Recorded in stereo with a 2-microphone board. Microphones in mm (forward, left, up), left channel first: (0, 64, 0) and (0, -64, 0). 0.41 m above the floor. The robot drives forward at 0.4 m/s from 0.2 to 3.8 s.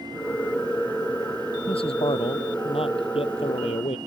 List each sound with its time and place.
1.7 s a man speaking: 45° left (ahead or behind); by 4.0 s 50° left (ahead or behind)